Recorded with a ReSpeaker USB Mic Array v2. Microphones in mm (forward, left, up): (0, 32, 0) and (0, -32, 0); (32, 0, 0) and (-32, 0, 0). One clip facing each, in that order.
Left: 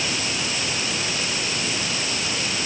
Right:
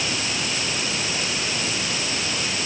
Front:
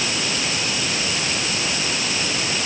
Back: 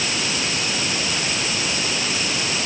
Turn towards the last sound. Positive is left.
No sound to turn to.